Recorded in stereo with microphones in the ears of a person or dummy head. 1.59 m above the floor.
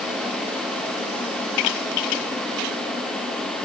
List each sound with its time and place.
Only background noise.